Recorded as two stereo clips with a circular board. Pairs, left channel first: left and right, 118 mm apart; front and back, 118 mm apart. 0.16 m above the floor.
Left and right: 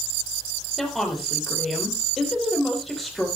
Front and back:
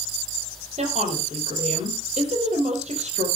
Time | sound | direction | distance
0.8 | a woman speaking | straight behind | 5.5 m